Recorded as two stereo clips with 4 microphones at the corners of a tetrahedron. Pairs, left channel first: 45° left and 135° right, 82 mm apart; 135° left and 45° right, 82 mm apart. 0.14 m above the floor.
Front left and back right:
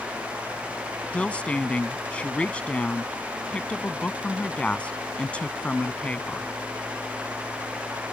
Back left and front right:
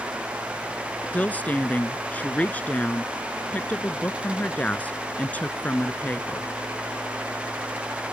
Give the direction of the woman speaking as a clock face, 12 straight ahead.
9 o'clock.